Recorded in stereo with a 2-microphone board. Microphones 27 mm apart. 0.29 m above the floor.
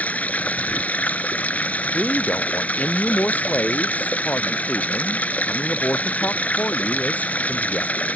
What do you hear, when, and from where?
0.0 s running water: 65° left (ahead or behind)
1.9 s a man speaking: 75° left (ahead or behind)